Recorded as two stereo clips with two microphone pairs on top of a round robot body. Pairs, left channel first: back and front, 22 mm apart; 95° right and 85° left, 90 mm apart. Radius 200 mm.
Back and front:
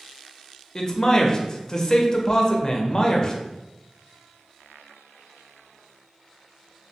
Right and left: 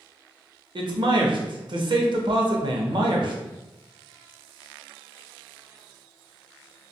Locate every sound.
0.8 s a man speaking: 115° left, 0.8 m